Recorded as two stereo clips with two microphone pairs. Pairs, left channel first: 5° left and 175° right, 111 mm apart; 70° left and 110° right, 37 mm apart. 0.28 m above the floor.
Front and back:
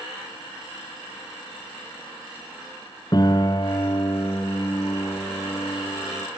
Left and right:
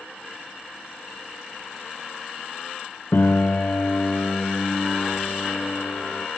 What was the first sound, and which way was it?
A piano, 55° left.